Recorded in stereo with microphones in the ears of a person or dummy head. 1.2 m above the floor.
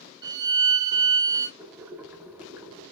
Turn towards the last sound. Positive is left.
turn(degrees=-10)  # may be behind; listen again after turning